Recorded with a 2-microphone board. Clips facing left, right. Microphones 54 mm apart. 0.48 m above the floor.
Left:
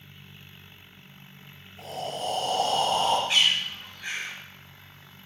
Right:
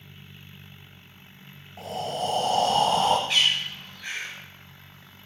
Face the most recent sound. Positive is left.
turn(degrees=15)  # may be behind; listen again after turning